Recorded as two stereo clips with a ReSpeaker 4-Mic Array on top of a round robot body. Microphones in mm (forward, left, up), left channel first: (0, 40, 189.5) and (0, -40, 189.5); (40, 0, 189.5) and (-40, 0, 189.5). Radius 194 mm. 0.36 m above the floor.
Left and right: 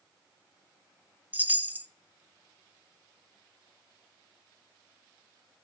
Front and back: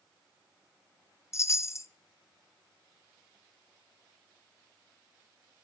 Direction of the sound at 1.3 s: 30° right.